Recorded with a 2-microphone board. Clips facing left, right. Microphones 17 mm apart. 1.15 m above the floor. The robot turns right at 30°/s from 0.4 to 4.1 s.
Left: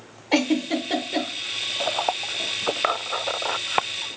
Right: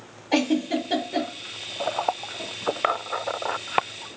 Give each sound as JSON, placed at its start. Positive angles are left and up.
{"t": 0.3, "sound": "a giggle", "side_deg": 25, "distance_m": 0.9}